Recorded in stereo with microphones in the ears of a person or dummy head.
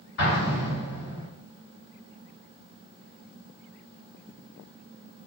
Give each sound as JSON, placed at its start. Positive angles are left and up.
{"t": 0.2, "sound": "an explosion", "side_deg": 65, "distance_m": 2.0}